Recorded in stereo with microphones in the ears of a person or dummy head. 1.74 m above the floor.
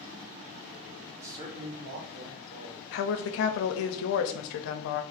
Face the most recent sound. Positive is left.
turn(degrees=60)  # may be behind; listen again after turning